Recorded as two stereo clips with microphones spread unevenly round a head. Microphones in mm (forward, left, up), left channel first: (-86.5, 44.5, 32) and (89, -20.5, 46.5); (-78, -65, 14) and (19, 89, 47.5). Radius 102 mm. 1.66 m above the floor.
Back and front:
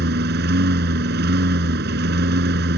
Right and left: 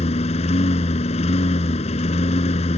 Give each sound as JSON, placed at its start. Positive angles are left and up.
{"t": 0.0, "sound": "a lawn mower", "azimuth_deg": -60}